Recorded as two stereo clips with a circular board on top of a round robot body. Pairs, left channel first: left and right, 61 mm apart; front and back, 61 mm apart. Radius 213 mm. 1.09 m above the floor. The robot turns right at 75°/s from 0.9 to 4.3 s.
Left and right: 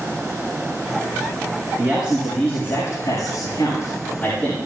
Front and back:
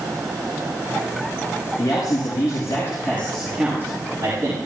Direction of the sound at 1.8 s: 35° right.